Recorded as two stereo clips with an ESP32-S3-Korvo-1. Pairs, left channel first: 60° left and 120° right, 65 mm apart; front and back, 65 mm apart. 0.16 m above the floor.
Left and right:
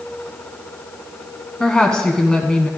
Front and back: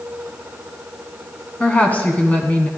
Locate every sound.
1.6 s a woman speaking: straight ahead, 1.2 m